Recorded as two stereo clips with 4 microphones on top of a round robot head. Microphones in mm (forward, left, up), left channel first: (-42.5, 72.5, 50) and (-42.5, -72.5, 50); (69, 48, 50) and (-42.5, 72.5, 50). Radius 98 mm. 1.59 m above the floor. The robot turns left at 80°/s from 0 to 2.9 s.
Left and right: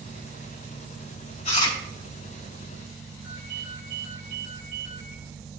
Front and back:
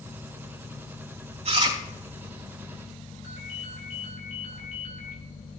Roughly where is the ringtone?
Ahead right.